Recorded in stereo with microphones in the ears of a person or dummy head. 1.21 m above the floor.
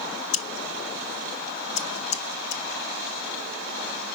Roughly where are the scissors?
Left.